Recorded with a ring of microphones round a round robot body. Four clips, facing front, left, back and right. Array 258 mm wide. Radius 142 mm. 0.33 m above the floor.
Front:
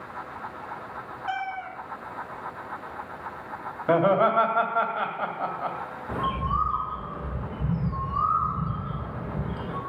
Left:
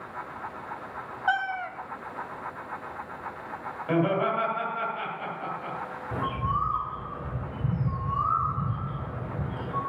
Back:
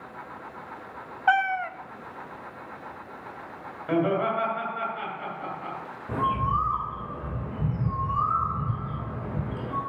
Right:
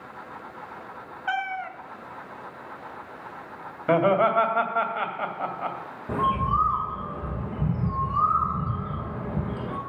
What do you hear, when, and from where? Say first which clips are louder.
1.3 s a cat meowing: left 1 dB, back 9 dB; 165° left, 0.6 m
3.9 s laughter: right 5 dB, front 4 dB; 50° right, 2.5 m
6.1 s a bird: right 6 dB, back 2 dB; 100° right, 3.5 m